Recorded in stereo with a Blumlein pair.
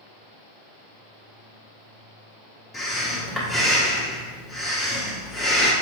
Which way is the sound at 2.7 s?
5° left.